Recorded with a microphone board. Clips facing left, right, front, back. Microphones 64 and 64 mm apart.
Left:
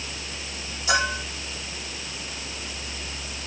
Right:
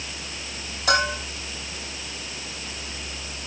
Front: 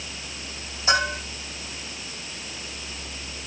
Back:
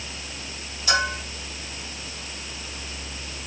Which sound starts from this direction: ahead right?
A bell, at 0.9 s.